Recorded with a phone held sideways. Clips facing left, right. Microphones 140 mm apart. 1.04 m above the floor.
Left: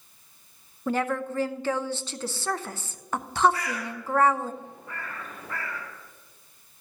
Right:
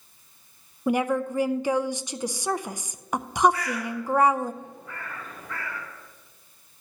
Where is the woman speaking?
15° right (ahead or behind), 0.5 m.